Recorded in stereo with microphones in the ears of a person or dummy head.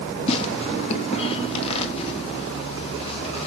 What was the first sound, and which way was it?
Tearing paper, 35° left (ahead or behind).